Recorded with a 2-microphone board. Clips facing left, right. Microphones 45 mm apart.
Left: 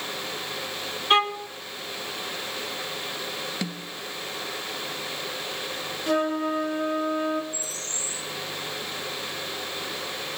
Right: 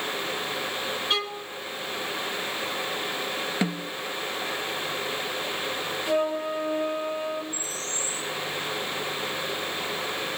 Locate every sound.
1.1 s a violin: 35° left (ahead or behind), 1.1 m
3.6 s a snare drum: 25° right (ahead or behind), 1.8 m
6.1 s a flute: 55° left (ahead or behind), 3 m
7.5 s a bird: 85° left, 9 m